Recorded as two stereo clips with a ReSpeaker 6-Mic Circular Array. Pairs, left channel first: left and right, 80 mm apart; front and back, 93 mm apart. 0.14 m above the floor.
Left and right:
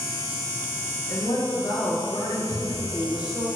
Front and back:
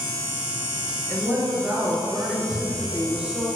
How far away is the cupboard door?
About 3 m.